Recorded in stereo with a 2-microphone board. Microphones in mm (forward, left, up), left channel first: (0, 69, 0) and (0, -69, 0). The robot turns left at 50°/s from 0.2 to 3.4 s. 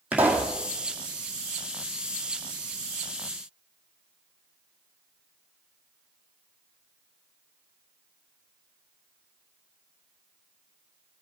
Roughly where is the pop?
Centre.